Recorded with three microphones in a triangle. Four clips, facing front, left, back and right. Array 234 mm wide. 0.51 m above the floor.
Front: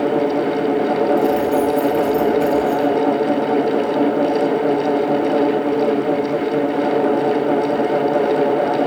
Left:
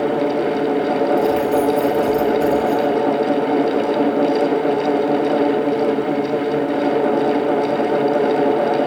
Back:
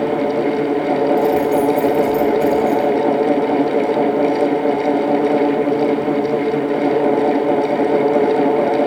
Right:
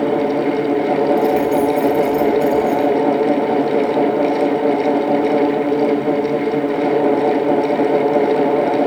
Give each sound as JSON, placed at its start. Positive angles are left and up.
{"t": 1.2, "sound": "keys jangling", "azimuth_deg": 100, "distance_m": 8.5}